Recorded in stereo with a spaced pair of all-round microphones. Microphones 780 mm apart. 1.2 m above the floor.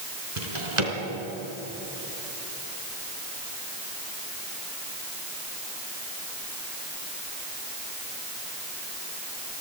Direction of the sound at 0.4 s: 40° right (ahead or behind).